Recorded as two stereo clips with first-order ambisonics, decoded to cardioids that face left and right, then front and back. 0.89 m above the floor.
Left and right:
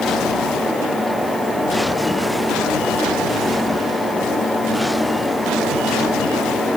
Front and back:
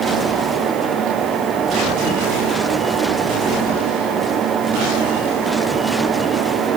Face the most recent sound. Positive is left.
No sound to turn to.